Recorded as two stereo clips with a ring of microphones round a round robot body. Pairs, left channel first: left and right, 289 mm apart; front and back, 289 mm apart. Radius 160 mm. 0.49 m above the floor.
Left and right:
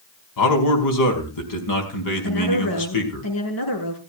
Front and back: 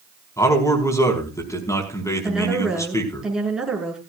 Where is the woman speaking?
90° left, 6.5 m.